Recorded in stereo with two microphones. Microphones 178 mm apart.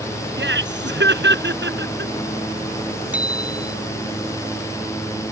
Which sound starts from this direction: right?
Laughter, at 0.4 s.